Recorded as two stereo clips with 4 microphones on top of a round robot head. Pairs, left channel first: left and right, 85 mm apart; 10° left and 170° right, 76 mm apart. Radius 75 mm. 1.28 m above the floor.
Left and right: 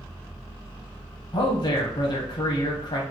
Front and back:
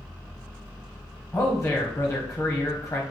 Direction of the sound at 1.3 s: 70° left.